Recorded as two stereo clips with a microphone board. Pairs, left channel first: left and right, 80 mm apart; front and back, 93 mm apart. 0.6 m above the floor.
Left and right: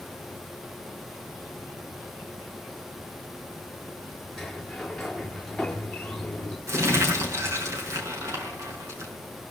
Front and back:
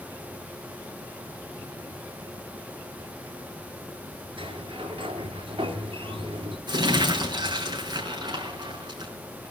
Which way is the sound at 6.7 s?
140° right.